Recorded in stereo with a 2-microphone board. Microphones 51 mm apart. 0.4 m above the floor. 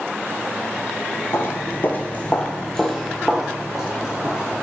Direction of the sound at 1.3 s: 60° left (ahead or behind).